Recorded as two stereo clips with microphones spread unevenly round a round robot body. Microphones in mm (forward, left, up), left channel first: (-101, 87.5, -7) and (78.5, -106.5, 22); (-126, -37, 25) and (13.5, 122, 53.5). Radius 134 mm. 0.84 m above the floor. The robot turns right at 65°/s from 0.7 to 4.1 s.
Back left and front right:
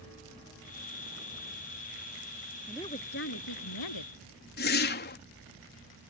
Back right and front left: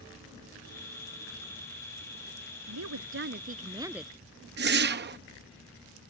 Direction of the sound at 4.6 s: 85° left.